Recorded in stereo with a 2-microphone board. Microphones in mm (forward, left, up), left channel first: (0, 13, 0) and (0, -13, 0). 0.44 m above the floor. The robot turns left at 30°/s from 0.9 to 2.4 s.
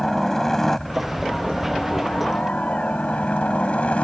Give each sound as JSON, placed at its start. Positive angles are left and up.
{"t": 0.0, "sound": "a helicopter", "azimuth_deg": 165}